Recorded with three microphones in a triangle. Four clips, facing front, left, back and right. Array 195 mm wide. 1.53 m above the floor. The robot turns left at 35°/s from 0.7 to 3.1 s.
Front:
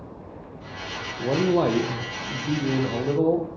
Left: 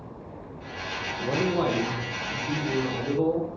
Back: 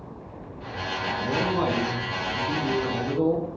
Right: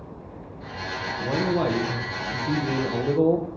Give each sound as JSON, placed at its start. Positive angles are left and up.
{"t": 1.2, "sound": "a man speaking", "azimuth_deg": 10, "distance_m": 1.2}